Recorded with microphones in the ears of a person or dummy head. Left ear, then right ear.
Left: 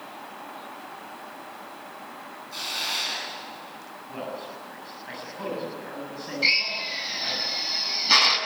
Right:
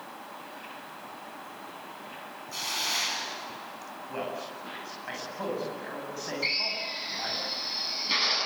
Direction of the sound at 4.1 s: 25° right (ahead or behind).